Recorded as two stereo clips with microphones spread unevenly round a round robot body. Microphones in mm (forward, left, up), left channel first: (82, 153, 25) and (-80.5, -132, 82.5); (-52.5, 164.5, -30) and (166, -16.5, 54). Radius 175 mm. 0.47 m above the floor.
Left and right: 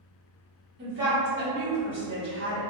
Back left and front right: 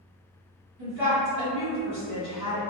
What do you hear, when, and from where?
0.8 s a woman speaking: 70° right, 1.8 m